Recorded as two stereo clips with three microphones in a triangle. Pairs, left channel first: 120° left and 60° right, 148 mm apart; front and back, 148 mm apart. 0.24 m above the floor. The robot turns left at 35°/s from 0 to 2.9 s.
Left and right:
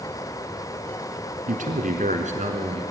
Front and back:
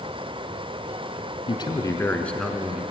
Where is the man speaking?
50° right, 2 m; by 2.8 s 100° right, 2 m.